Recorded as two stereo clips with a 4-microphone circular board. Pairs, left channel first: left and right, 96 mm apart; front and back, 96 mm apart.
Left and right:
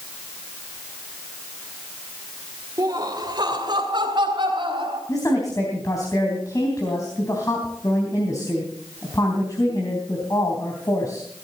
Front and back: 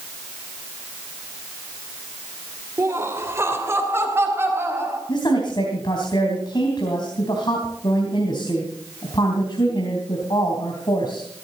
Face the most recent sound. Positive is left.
turn(degrees=35)